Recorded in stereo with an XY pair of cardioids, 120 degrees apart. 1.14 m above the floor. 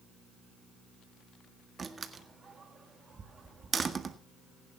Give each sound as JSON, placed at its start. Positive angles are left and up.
{"t": 1.8, "sound": "a door slam", "azimuth_deg": -35, "distance_m": 1.6}